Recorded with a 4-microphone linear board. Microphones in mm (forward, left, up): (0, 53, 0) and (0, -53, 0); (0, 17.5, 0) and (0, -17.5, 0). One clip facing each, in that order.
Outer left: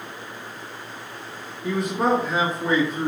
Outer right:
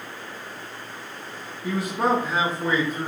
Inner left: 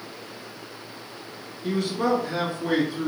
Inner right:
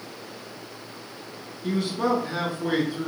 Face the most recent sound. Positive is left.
turn(degrees=0)  # may be behind; listen again after turning